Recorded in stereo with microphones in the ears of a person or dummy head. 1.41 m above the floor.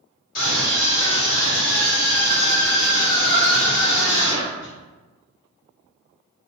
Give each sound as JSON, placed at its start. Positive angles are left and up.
{"t": 0.3, "sound": "a scream", "side_deg": 55, "distance_m": 1.6}